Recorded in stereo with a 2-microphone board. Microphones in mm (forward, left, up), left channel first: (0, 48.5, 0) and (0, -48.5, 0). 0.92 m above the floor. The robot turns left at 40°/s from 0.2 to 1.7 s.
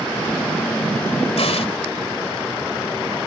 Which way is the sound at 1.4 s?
80° left.